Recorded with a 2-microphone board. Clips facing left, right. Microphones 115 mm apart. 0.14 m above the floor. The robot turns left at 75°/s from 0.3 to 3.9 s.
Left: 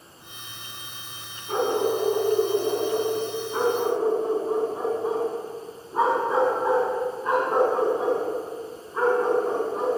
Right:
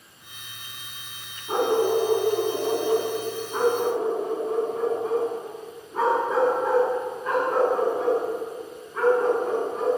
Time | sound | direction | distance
1.5 | a dog barking | 10° right | 4 m